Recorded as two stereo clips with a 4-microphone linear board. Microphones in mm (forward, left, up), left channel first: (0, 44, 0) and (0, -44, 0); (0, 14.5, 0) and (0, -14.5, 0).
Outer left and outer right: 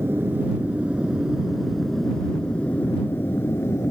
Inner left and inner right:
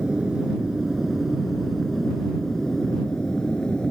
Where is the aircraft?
25° right (ahead or behind); by 3.9 s 35° left (ahead or behind).